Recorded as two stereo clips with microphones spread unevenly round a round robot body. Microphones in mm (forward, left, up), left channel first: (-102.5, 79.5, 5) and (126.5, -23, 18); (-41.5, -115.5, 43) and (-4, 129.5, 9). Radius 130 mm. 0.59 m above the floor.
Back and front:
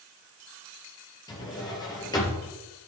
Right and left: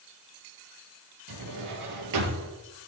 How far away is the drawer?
About 4 m.